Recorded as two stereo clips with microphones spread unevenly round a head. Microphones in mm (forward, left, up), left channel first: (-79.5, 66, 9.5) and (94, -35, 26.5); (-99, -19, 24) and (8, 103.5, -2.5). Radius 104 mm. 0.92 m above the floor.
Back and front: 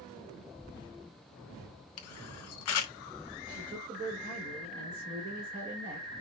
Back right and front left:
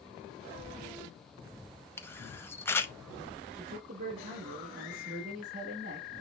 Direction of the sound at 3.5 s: 20° left.